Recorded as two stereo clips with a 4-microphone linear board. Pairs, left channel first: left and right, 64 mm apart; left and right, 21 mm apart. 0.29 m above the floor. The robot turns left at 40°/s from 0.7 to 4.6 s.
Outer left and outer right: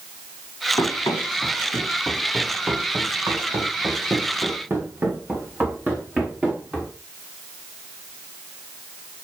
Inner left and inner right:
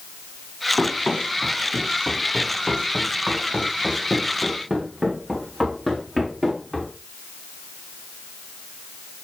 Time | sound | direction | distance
0.8 | running footsteps | 80° left | 2.5 m